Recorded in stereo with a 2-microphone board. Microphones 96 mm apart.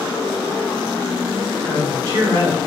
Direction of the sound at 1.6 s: 55° right (ahead or behind).